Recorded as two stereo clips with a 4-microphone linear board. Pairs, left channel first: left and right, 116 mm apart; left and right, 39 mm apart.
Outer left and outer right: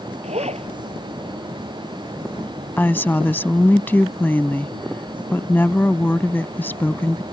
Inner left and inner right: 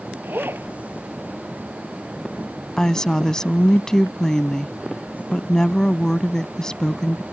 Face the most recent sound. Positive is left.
turn(degrees=15)  # may be behind; listen again after turning